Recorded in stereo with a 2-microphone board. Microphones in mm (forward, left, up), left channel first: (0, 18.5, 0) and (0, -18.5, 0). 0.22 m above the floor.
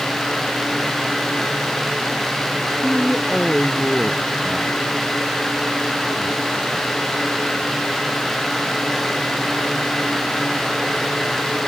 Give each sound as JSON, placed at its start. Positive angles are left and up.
{"t": 2.8, "sound": "a man speaking", "side_deg": 5}